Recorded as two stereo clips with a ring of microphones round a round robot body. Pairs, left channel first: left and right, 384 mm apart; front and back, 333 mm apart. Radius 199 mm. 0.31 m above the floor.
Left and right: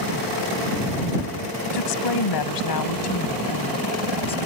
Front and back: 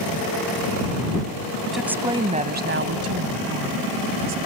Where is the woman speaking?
90° left; by 4.4 s 165° left.